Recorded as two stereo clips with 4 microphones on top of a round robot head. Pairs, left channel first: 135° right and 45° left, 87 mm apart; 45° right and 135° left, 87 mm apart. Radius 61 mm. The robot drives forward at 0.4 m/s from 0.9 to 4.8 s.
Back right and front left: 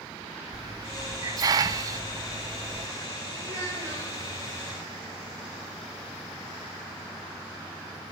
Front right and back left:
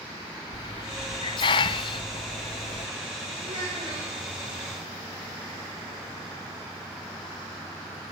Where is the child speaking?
100° left, 9 m.